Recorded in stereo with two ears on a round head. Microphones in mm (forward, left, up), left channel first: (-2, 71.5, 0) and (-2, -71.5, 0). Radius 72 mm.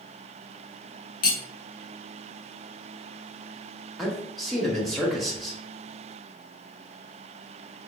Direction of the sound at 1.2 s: 60° left (ahead or behind).